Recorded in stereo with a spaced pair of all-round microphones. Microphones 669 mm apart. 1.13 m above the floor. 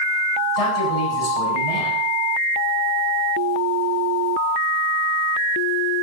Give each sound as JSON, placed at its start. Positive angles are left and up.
{"t": 0.6, "sound": "a man speaking", "side_deg": 60, "distance_m": 8.0}